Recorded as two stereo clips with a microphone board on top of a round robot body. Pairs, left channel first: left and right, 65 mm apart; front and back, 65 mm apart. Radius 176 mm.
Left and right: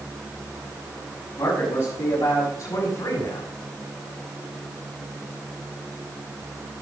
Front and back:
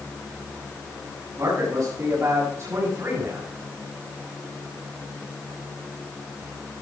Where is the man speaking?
145° left, 7 m; by 3.5 s 125° left, 7.5 m.